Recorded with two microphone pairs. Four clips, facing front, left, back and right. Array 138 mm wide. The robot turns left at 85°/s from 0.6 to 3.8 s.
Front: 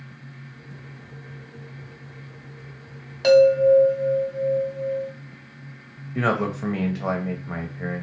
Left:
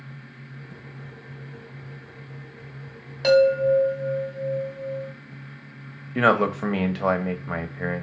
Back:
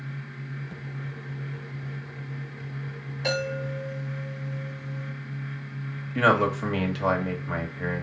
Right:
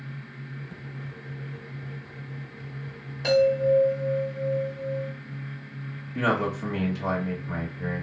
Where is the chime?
45° left, 2.5 m; by 5.1 s 5° right, 2.5 m.